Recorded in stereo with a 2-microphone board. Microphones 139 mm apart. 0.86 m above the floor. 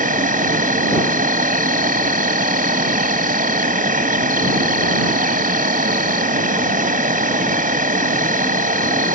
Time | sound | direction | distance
0.0 | an insect | 85° right | ?